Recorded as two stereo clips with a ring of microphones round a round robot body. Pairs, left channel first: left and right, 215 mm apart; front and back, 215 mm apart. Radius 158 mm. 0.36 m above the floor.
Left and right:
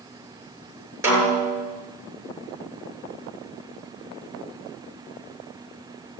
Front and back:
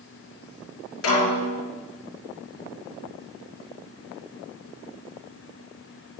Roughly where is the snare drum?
Ahead.